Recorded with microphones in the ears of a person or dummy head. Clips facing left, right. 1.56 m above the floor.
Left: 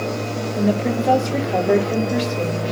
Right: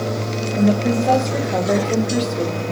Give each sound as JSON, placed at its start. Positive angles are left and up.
{"t": 0.6, "sound": "a woman speaking", "side_deg": 0, "distance_m": 1.6}